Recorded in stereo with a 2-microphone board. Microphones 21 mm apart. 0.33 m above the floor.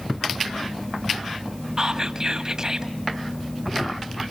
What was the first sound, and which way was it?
Whispering, 30° right (ahead or behind).